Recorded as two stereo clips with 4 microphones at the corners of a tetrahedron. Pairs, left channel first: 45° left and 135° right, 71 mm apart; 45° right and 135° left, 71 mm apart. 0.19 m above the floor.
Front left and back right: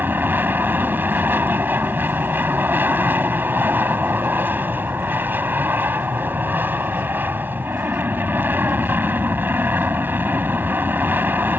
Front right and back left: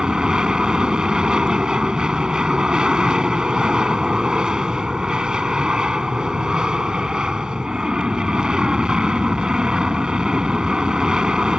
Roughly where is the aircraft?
Behind.